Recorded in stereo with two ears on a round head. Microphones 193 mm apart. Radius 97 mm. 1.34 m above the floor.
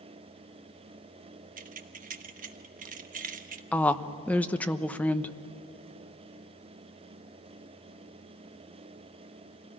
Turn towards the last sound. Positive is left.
turn(degrees=5)  # may be behind; listen again after turning